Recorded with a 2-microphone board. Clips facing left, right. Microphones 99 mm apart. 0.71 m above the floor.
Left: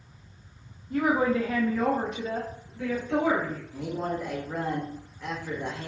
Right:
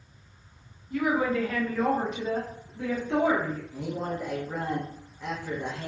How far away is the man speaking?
About 0.8 m.